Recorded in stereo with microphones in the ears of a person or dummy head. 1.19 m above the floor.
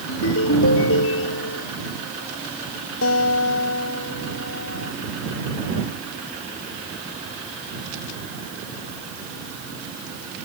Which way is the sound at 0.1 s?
75° left (ahead or behind).